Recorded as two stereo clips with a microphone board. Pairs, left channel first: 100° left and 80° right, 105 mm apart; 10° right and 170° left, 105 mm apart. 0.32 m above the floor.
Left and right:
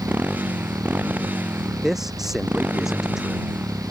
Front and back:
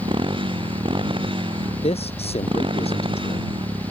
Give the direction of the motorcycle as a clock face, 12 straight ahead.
5 o'clock.